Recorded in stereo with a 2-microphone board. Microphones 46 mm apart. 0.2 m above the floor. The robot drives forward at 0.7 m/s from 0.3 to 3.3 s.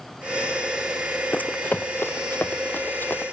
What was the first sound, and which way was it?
Running footsteps, 40° left (ahead or behind).